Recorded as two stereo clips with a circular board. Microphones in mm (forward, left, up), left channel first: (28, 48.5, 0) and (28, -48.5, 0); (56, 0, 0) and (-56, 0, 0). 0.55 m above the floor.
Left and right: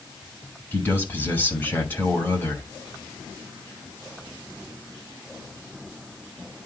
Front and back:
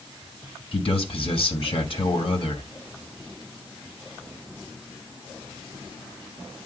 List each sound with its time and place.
0.7 s a man speaking: 25° left, 3 m